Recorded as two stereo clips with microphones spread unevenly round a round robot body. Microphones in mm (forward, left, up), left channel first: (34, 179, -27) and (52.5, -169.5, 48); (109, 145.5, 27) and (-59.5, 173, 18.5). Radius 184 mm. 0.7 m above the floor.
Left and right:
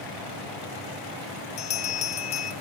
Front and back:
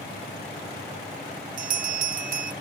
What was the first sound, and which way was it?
A bell, 170° left.